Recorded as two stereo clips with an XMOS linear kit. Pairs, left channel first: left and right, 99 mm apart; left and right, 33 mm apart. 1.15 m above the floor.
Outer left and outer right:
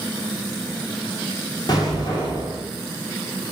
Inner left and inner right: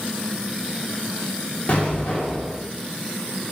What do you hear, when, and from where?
1.7 s an explosion: 40° left (ahead or behind), 0.9 m